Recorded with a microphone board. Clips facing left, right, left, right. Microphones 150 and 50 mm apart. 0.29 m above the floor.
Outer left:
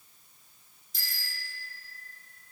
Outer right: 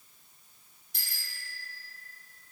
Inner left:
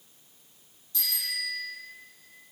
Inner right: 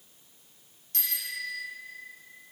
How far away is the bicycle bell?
About 5 m.